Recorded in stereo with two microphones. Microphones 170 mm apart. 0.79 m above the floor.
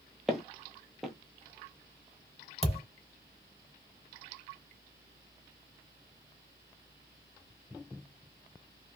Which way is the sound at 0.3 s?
Centre (ahead or behind).